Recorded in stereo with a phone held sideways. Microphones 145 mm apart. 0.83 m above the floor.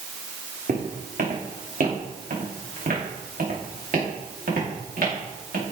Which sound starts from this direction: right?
Footsteps, at 0.7 s.